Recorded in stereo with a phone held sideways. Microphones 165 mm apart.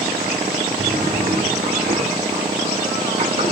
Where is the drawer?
75° right (ahead or behind), 2.5 m.